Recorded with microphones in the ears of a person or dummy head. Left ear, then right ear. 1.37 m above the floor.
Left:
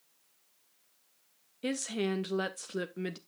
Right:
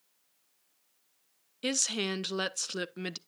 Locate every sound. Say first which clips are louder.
1.6 s a woman speaking: right 3 dB; 25° right (ahead or behind), 0.7 m